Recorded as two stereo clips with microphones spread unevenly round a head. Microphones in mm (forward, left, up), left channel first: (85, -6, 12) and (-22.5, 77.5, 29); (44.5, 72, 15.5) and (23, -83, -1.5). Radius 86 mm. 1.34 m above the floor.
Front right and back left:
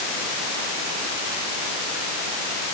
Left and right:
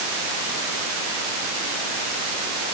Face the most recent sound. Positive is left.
No sound to turn to.